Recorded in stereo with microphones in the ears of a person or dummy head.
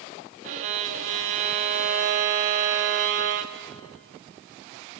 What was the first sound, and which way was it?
A violin, 45° right (ahead or behind).